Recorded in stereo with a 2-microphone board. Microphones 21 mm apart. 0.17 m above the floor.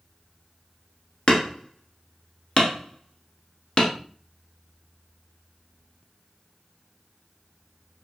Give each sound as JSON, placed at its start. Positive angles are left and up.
{"t": 1.3, "sound": "hammering", "side_deg": 35, "distance_m": 1.2}